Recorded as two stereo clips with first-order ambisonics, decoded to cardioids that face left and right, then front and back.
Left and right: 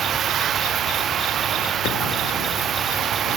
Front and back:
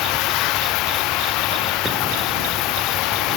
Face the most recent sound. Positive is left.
turn(degrees=-30)